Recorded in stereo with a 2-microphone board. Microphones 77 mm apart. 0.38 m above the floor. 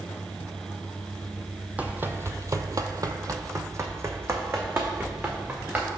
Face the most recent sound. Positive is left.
turn(degrees=-30)  # may be behind; listen again after turning